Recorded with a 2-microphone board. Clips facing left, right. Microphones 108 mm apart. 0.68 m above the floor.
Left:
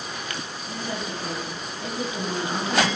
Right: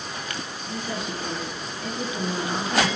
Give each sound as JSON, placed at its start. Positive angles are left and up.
{"t": 0.7, "sound": "a woman speaking", "side_deg": 40, "distance_m": 4.0}